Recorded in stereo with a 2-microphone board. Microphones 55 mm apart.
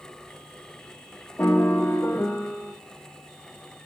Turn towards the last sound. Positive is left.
turn(degrees=30)  # may be behind; listen again after turning